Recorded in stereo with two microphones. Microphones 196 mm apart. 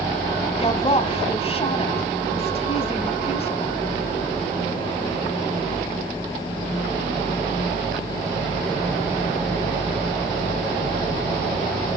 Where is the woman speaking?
30° left (ahead or behind), 1.4 m.